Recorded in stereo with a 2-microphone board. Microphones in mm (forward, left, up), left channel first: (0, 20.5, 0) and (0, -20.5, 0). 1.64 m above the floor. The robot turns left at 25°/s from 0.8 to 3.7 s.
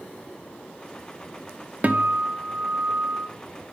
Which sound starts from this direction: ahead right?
A guitar, at 1.8 s.